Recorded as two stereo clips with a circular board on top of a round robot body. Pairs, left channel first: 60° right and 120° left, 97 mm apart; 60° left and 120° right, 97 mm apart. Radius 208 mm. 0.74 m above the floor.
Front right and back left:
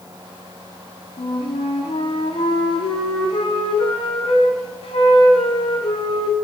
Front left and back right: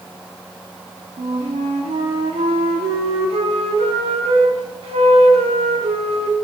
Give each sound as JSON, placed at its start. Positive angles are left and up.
{"t": 1.2, "sound": "a flute", "azimuth_deg": -100, "distance_m": 0.5}